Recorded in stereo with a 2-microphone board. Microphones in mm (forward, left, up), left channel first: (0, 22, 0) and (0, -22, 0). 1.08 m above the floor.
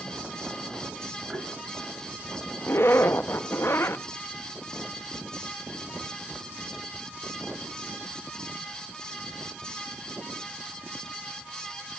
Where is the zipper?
75° left (ahead or behind), 0.7 m.